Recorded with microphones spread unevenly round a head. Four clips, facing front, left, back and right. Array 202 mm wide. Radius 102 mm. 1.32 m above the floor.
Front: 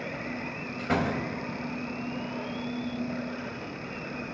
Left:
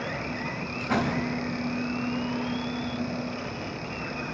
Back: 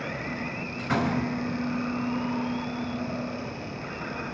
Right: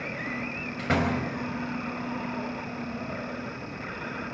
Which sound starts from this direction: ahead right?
A door slam, at 0.8 s.